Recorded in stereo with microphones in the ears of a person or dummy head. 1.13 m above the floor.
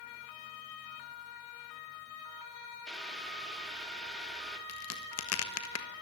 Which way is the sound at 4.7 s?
70° left (ahead or behind).